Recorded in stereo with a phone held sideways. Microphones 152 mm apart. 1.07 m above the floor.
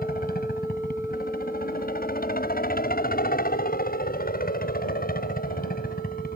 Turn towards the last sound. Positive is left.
turn(degrees=75)  # may be behind; listen again after turning